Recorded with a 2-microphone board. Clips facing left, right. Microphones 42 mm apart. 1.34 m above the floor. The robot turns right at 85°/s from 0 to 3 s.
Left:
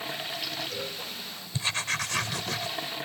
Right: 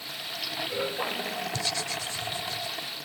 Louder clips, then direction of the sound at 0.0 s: Left 2 dB; 140° left.